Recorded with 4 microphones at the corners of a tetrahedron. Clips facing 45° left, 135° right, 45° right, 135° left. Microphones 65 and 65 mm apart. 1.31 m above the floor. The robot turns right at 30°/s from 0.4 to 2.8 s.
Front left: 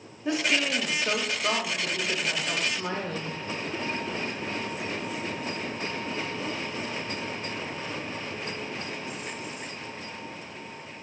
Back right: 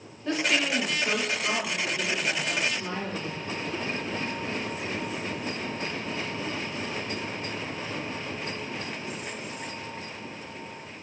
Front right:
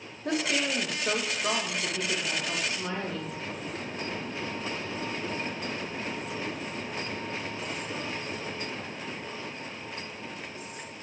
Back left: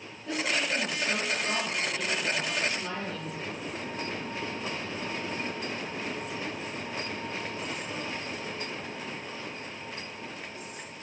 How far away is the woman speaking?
About 0.7 m.